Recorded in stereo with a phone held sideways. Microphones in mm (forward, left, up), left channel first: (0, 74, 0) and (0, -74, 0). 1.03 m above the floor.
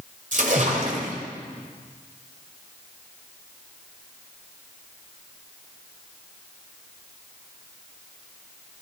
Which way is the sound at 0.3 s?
60° right (ahead or behind).